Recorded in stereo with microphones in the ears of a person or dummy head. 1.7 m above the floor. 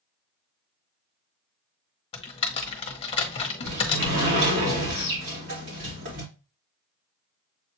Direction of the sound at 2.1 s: 35° left (ahead or behind).